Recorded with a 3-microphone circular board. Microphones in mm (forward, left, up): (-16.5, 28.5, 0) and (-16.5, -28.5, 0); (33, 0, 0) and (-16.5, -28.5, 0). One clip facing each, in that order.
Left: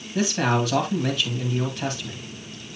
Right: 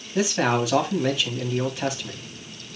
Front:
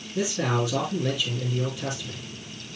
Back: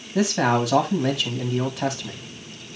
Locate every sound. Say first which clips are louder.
0.1 s a man speaking: right 1 dB, back 5 dB; straight behind, 2 m